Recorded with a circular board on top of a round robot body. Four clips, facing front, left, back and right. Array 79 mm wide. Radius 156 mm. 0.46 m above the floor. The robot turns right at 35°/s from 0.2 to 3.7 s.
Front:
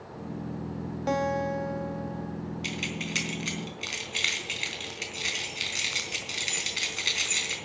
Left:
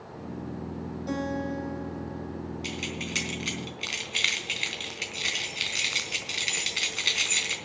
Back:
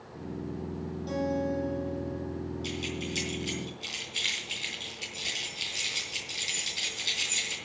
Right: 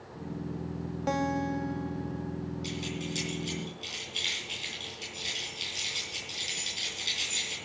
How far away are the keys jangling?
About 3.5 m.